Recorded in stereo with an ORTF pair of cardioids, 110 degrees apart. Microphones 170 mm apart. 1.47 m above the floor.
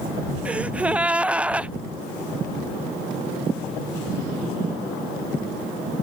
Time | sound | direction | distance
0.5 | a gasp | 10° right | ?